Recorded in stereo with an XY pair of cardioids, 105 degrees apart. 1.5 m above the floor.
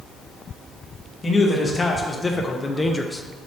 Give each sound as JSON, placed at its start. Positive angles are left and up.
{"t": 1.2, "sound": "a man speaking", "azimuth_deg": 25, "distance_m": 1.8}